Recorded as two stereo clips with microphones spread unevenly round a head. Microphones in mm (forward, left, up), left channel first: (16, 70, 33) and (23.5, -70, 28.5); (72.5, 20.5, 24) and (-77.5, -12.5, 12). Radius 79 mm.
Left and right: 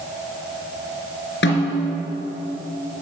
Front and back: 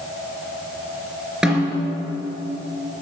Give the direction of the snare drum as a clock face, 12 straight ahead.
8 o'clock.